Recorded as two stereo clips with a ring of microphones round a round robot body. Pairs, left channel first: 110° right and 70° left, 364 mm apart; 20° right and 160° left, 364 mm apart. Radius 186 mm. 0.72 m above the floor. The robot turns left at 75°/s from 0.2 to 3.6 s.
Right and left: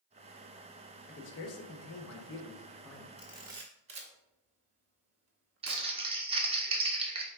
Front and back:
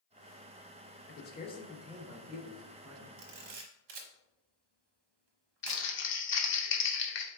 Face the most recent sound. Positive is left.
turn(degrees=5)